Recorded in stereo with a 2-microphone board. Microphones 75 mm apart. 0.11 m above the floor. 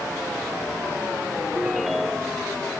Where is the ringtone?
5° right (ahead or behind).